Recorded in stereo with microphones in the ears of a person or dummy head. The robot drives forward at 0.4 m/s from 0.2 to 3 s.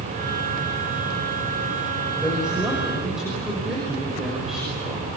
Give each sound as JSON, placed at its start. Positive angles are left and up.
{"t": 2.2, "sound": "a woman speaking", "side_deg": 5, "distance_m": 6.5}